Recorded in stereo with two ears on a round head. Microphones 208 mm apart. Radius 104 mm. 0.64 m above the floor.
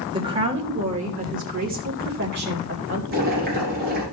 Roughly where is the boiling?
Right.